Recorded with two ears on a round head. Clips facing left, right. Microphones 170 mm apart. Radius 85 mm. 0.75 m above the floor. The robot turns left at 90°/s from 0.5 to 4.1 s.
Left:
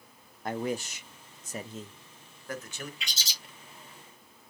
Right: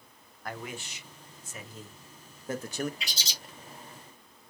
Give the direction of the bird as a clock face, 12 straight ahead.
12 o'clock.